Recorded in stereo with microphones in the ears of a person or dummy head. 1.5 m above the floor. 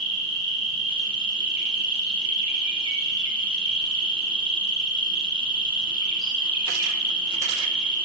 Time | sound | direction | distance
0.0 | an insect | 25° right (ahead or behind) | 1.2 m